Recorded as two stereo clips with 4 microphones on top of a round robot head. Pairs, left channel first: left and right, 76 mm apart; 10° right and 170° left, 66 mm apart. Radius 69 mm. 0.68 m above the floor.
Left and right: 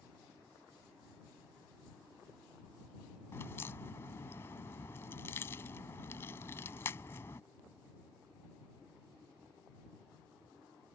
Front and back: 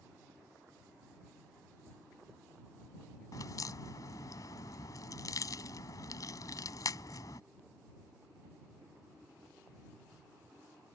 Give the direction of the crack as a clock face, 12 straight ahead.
11 o'clock.